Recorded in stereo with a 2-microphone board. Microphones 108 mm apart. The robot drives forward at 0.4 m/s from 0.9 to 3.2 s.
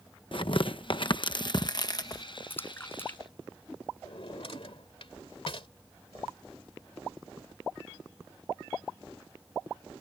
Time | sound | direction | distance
0.3 | tearing paper | 55° left (ahead or behind) | ?
2.5 | a splash | 20° left (ahead or behind) | ?
4.0 | a drawer | 60° left (ahead or behind) | ?